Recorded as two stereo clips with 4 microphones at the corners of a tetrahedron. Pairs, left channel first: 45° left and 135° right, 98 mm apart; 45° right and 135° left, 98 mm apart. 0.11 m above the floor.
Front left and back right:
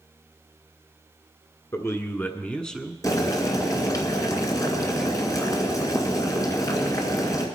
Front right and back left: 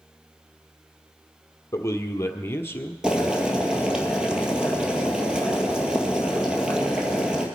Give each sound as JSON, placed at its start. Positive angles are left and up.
{"t": 1.7, "sound": "a man speaking", "azimuth_deg": 0, "distance_m": 1.5}
{"t": 3.0, "sound": "boiling", "azimuth_deg": 60, "distance_m": 2.0}